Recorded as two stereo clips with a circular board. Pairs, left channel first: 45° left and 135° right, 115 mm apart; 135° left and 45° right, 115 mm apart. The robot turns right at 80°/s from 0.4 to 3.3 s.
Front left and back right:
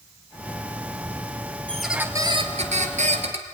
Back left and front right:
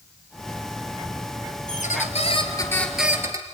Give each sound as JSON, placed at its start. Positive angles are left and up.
{"t": 1.7, "sound": "a squeak", "azimuth_deg": 125, "distance_m": 2.0}